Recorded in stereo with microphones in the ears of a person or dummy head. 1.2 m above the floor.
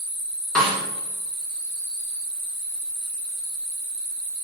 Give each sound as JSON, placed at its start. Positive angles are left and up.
{"t": 0.6, "sound": "a snare drum", "side_deg": 0, "distance_m": 1.4}